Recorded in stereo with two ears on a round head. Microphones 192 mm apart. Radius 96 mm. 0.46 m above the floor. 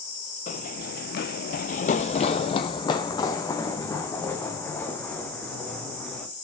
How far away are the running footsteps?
About 0.7 m.